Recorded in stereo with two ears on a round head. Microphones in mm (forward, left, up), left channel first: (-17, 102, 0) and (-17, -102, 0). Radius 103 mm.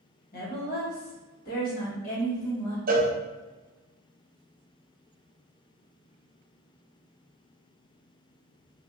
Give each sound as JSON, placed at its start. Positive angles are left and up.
{"t": 0.3, "sound": "a woman speaking", "side_deg": 40, "distance_m": 1.1}
{"t": 2.9, "sound": "a cowbell", "side_deg": -40, "distance_m": 0.5}